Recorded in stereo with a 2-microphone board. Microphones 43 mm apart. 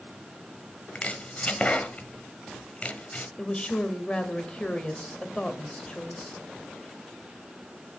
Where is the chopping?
30° left (ahead or behind), 1.1 m.